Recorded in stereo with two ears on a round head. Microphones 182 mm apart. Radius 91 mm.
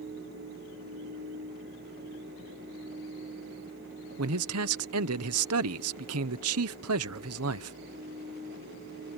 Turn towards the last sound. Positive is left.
turn(degrees=-85)